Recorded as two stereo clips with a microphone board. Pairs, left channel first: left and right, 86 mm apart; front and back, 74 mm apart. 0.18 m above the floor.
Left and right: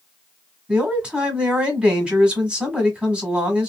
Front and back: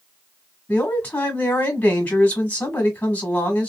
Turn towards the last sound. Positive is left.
turn(degrees=-30)